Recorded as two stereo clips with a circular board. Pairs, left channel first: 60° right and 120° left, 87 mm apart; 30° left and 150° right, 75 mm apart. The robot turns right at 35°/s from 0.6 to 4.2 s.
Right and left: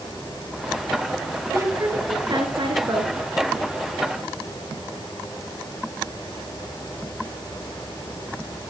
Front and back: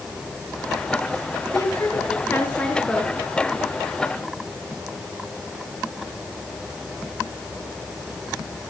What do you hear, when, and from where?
1.5 s a woman speaking: 65° left, 4.5 m; by 3.1 s 120° left, 4.5 m